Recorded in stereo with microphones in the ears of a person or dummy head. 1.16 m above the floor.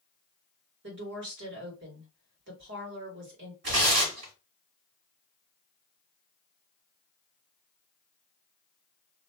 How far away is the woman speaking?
About 1.3 m.